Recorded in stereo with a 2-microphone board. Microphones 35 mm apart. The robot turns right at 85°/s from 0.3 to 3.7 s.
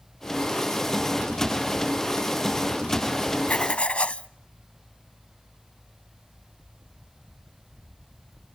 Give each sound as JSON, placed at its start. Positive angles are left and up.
{"t": 3.5, "sound": "writing", "side_deg": 40, "distance_m": 0.6}